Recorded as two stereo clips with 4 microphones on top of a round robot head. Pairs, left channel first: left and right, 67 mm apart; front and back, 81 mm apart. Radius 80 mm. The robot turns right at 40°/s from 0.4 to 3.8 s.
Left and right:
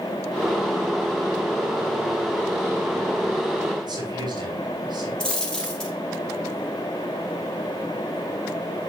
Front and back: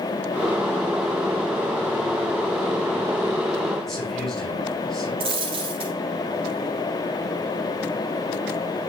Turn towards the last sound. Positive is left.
turn(degrees=165)